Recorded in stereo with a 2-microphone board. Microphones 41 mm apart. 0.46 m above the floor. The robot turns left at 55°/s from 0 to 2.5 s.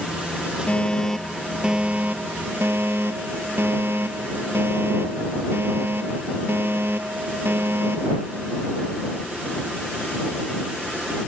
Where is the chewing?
No chewing in this recording.